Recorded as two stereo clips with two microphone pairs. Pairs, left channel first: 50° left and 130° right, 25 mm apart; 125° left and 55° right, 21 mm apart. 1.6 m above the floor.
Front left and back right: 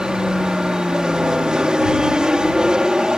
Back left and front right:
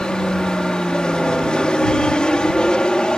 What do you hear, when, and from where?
0.0 s an aircraft: 170° left